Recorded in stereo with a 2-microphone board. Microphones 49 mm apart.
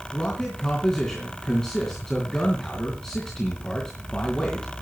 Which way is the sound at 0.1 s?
10° left (ahead or behind).